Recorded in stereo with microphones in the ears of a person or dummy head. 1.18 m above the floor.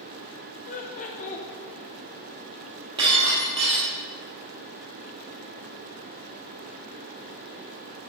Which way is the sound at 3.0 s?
35° right (ahead or behind).